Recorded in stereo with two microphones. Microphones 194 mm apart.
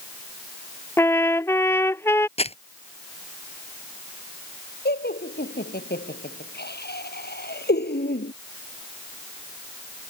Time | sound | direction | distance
1.0 | a trumpet | 15° left (ahead or behind) | ?
2.4 | crumpling | 35° left (ahead or behind) | ?
4.8 | laughter | 65° left (ahead or behind) | ?